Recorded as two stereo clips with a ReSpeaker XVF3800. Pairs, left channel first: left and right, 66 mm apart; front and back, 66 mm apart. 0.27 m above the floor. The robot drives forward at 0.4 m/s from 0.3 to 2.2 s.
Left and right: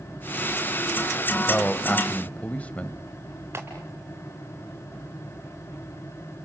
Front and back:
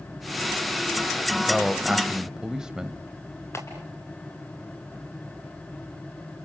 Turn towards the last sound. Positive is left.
turn(degrees=-45)